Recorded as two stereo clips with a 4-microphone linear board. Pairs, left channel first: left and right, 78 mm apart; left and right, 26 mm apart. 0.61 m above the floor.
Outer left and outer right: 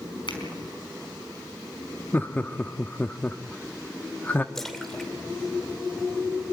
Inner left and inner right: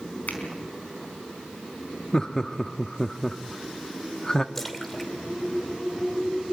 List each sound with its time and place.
0.3 s a finger snap: 85° left, 4.5 m
2.1 s laughter: 25° left (ahead or behind), 1.0 m
4.5 s a splash: 5° left (ahead or behind), 2 m